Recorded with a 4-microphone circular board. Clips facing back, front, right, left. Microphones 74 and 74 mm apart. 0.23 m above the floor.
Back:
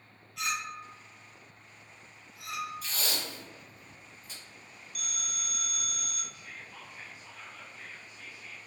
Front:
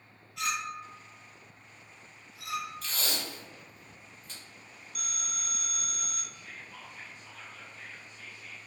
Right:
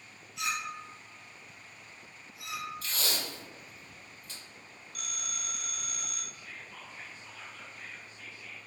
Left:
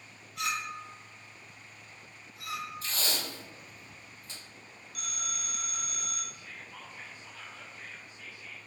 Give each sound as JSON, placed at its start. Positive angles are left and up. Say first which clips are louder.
{"t": 0.4, "sound": "a clink", "louder": "front 1 dB, left 1 dB", "azimuth_deg": 95, "distance_m": 1.6}
{"t": 2.8, "sound": "tape being pulled", "louder": "even, even", "azimuth_deg": 105, "distance_m": 1.4}
{"t": 5.0, "sound": "a phone ringing", "louder": "front 1 dB, left 3 dB", "azimuth_deg": 10, "distance_m": 0.8}
{"t": 6.3, "sound": "whispering", "louder": "even, even", "azimuth_deg": 125, "distance_m": 0.9}